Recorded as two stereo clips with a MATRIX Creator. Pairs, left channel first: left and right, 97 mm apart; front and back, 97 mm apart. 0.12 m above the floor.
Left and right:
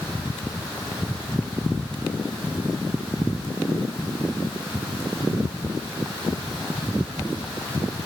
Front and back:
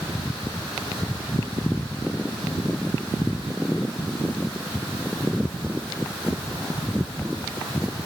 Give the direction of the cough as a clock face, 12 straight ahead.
I don't hear a cough.